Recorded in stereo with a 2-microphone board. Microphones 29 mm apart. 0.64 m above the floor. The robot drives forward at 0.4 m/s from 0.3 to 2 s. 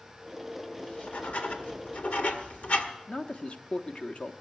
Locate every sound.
0.8 s writing: 60° left (ahead or behind), 1.7 m; by 2.9 s 70° left (ahead or behind), 1.6 m
3.1 s a man speaking: 40° left (ahead or behind), 0.9 m